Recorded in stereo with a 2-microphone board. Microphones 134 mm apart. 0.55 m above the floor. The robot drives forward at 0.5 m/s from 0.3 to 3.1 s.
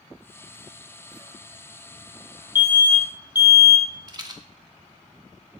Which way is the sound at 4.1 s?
30° right (ahead or behind).